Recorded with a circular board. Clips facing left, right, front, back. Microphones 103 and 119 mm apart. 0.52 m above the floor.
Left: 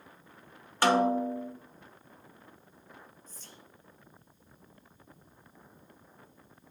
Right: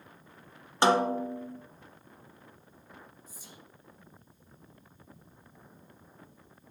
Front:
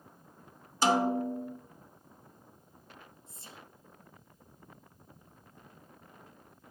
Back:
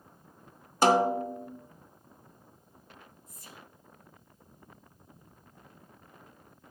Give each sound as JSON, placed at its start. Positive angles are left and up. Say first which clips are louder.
{"t": 0.8, "sound": "a snare drum", "louder": "even, back 3 dB", "azimuth_deg": -155, "distance_m": 0.7}
{"t": 3.3, "sound": "whispering", "louder": "right 1 dB, back 1 dB", "azimuth_deg": -20, "distance_m": 0.7}